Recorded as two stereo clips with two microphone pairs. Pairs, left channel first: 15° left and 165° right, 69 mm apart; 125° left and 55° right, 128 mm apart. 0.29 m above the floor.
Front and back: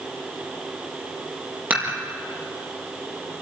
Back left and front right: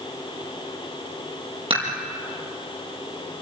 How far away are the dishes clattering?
About 5.5 m.